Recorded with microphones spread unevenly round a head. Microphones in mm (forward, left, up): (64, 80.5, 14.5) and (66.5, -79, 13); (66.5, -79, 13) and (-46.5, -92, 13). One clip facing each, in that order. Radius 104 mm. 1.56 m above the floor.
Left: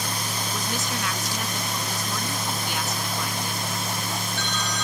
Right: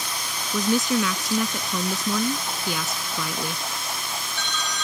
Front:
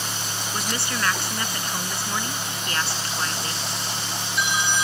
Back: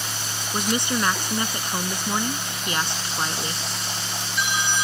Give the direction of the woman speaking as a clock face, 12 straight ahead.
3 o'clock.